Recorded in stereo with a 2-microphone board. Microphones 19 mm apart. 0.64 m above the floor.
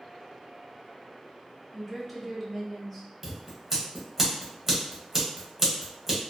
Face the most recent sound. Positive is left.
turn(degrees=-15)  # may be behind; listen again after turning